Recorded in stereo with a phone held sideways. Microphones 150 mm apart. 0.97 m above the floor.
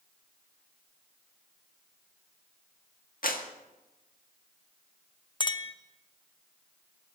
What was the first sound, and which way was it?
A clap, 70° left (ahead or behind).